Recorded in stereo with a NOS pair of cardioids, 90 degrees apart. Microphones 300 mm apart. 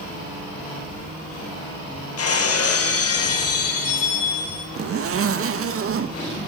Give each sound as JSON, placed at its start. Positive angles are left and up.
{"t": 2.2, "sound": "breaking glass", "azimuth_deg": 55, "distance_m": 5.0}
{"t": 4.8, "sound": "a zipper", "azimuth_deg": -50, "distance_m": 2.0}